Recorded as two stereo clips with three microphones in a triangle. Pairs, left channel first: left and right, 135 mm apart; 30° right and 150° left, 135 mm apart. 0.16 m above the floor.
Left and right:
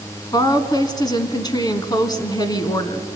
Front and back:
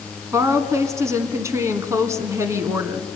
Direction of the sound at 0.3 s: 105° left.